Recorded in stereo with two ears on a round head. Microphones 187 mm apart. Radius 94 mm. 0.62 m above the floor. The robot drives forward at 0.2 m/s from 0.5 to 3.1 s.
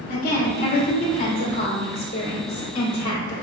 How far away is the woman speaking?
About 1.4 m.